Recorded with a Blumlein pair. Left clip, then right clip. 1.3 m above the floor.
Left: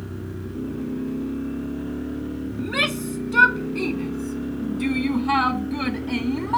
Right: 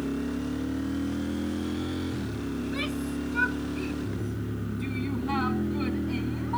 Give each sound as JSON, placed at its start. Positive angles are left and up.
{"t": 2.6, "sound": "a shout", "azimuth_deg": 55}